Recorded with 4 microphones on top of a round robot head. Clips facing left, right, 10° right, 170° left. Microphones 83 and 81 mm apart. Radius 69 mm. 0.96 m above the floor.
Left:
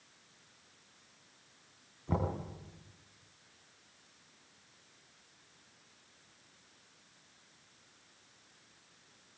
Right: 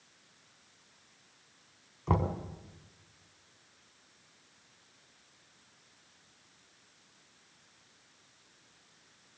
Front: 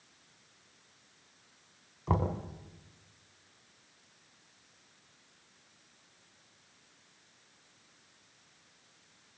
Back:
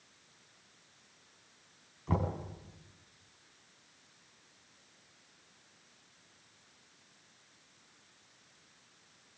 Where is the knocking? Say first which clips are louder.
Right 4 dB, front 2 dB; 60° right, 4 m.